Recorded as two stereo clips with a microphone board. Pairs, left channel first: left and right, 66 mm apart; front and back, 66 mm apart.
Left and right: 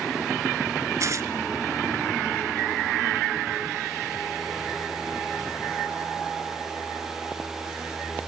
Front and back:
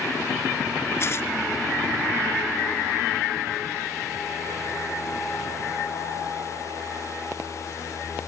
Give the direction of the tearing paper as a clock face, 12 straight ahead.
2 o'clock.